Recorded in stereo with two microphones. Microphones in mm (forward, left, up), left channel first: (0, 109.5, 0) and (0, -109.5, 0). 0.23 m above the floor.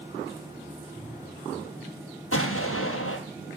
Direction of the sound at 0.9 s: 20° left (ahead or behind).